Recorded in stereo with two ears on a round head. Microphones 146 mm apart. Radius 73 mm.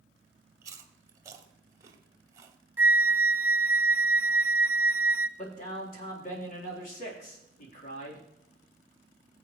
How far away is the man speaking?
About 4 m.